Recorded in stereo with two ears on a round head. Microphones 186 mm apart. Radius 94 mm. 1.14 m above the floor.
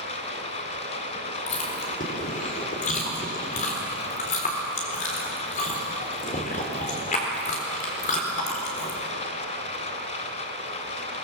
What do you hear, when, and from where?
0.0 s running water: 35° left (ahead or behind), 3 m
1.5 s chewing: 35° left (ahead or behind), 4 m